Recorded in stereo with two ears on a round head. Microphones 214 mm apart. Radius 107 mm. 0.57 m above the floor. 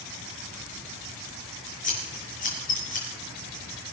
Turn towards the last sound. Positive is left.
turn(degrees=35)  # may be behind; listen again after turning